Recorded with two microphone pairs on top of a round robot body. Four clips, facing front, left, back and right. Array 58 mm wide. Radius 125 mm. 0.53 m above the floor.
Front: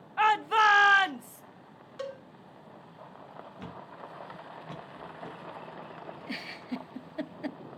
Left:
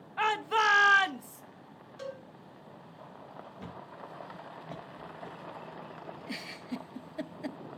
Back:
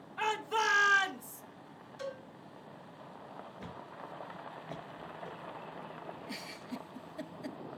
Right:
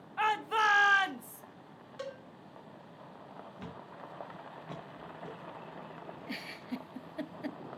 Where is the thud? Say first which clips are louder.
Left 1 dB, front 4 dB; 20° right, 3 m.